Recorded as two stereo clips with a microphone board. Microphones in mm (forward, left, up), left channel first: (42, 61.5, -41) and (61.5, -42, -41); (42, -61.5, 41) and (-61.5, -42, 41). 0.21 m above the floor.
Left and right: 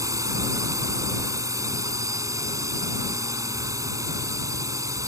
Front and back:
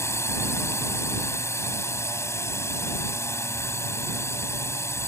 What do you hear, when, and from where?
0.0 s a drone: 50° right